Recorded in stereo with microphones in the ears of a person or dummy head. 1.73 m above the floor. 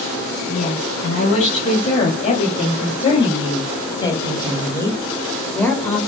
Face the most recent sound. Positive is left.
turn(degrees=5)  # may be behind; listen again after turning